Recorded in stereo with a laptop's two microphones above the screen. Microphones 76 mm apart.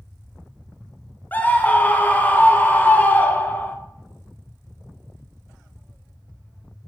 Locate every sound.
1.3 s a scream: 25° left (ahead or behind), 0.7 m